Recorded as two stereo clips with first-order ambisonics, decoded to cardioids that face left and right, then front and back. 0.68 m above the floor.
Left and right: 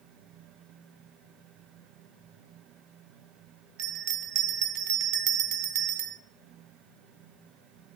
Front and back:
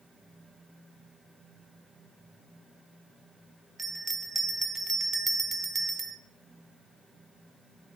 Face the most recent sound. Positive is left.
turn(degrees=-105)